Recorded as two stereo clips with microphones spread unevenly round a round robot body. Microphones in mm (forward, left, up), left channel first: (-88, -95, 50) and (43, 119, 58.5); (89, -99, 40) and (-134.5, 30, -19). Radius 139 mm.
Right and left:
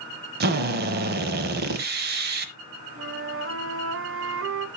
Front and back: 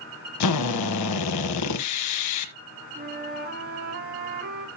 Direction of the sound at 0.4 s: 5° left.